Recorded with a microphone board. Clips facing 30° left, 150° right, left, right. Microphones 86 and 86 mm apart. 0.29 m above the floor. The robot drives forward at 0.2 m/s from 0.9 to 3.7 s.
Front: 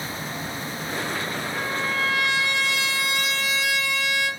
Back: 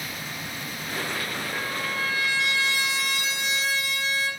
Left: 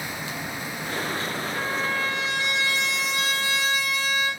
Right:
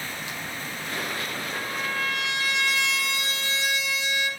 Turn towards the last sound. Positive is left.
turn(degrees=-95)